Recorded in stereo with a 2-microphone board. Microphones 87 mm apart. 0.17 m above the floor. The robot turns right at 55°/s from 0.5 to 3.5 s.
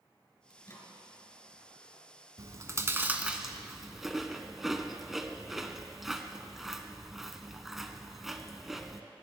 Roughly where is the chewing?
Right.